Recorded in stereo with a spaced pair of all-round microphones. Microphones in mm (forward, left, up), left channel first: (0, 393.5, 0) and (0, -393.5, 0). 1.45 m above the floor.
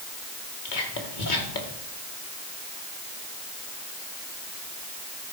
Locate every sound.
0.7 s whispering: 75° left (ahead or behind), 2 m